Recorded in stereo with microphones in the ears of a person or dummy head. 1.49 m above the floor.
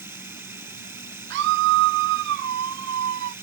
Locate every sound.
0.0 s running water: 10° right (ahead or behind)
1.3 s a scream: 50° right (ahead or behind)